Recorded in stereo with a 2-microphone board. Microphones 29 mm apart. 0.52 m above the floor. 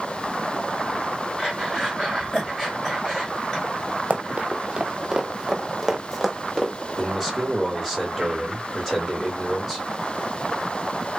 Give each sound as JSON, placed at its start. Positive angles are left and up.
{"t": 1.4, "sound": "breathing", "side_deg": 5, "distance_m": 2.5}
{"t": 4.1, "sound": "running footsteps", "side_deg": -45, "distance_m": 0.7}
{"t": 7.0, "sound": "a man speaking", "side_deg": 0, "distance_m": 2.5}